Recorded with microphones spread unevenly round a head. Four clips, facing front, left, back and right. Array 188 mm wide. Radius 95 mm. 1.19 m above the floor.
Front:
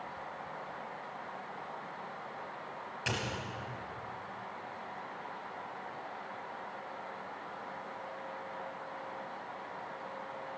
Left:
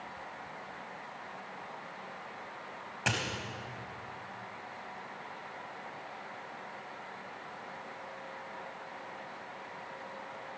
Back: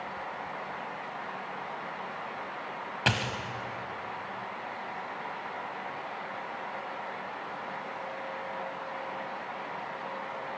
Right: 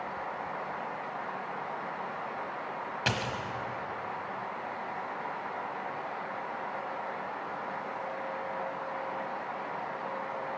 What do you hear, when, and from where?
3.1 s a dropped coin: 175° right, 1.3 m